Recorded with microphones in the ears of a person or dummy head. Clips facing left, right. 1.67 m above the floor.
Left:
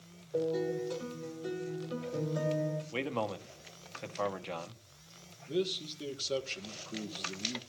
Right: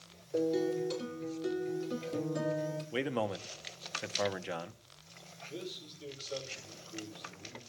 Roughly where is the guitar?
Right.